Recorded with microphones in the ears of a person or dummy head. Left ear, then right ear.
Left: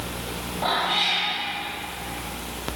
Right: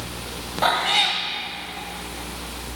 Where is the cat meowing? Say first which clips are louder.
Right 3 dB; 35° right (ahead or behind), 1.9 m.